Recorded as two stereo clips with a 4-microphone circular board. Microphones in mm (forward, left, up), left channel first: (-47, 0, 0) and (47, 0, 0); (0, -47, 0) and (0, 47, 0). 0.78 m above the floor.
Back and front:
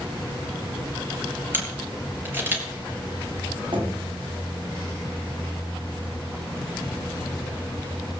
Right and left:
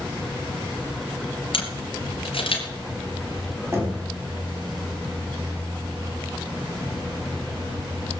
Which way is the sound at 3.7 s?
30° left.